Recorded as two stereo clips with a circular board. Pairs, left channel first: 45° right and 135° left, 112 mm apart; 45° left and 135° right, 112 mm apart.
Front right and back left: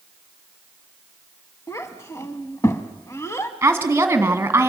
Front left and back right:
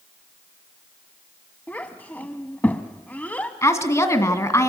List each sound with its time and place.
1.7 s a child speaking: 15° right, 0.7 m
3.6 s a woman speaking: 75° left, 1.8 m